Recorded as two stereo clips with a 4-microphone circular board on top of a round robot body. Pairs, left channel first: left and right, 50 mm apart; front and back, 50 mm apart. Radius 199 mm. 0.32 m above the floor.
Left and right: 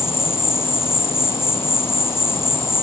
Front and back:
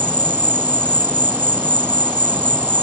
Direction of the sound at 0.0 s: 130° left.